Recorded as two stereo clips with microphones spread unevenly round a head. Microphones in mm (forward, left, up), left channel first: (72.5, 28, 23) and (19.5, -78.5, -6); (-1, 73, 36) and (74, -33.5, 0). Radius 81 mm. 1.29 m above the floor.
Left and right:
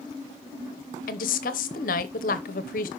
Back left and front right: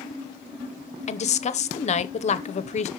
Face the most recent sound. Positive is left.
turn(degrees=85)